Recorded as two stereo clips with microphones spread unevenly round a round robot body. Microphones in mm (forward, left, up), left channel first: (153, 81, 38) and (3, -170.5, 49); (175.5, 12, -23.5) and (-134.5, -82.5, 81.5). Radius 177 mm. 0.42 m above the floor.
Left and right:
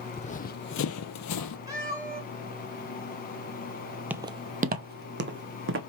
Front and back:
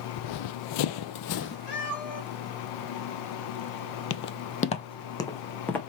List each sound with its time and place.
0.1 s running footsteps: 10° right, 0.8 m; by 1.6 s 90° left, 0.6 m
1.7 s a cat meowing: 45° right, 3.5 m
4.1 s footsteps: 40° right, 0.5 m; by 5.8 s 75° right, 1.3 m